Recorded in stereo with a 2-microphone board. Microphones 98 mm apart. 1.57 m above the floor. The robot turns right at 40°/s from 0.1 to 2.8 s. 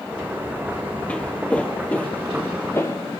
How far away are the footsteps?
About 1.6 m.